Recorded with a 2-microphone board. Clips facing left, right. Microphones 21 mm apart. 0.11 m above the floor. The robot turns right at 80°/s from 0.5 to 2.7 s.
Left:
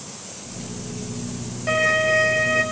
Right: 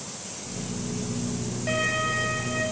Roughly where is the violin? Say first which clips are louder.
Left 8 dB; ahead.